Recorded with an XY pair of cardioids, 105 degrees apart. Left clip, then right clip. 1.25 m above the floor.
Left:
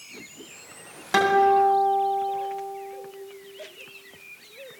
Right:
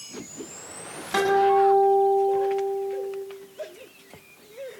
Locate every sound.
1.1 s a guitar: 30° left, 8.5 m